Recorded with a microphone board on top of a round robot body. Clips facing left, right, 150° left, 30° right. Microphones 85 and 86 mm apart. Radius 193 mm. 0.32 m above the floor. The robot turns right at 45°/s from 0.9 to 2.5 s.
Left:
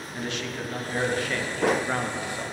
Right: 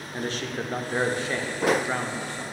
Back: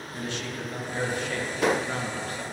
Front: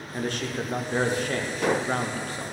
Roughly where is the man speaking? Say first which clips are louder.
Right 2 dB, front 5 dB; ahead right.